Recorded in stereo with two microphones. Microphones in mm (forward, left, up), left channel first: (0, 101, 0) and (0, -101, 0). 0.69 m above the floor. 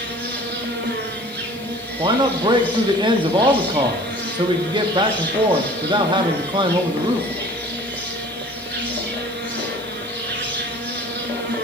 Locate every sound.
0.0 s an insect: 60° right (ahead or behind), 1.1 m
2.0 s a man speaking: 25° right (ahead or behind), 0.8 m